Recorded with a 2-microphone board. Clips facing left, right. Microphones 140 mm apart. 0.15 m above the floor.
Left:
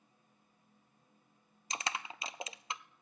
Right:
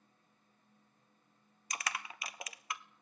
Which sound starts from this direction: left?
Crushing, at 1.7 s.